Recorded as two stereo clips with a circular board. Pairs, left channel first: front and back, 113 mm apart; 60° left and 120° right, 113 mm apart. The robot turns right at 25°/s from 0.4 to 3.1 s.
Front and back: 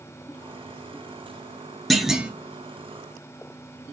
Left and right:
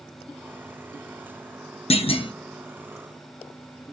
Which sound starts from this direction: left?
A clunk, at 1.9 s.